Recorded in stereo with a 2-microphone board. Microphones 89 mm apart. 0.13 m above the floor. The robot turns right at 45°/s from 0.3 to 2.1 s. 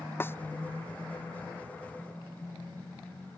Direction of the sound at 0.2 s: 25° left (ahead or behind).